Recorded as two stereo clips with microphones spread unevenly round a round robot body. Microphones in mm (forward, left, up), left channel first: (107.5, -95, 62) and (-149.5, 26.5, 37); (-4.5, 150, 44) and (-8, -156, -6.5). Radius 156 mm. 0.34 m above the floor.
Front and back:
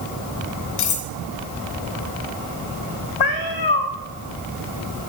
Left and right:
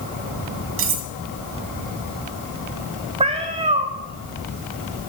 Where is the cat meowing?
15° right, 2.5 m.